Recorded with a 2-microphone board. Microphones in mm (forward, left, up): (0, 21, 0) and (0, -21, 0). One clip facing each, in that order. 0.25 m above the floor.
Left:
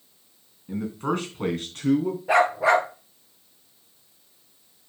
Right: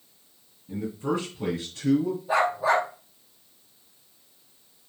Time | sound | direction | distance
0.7 | a man speaking | 60° left (ahead or behind) | 3 m
2.3 | a dog barking | 80° left | 1.9 m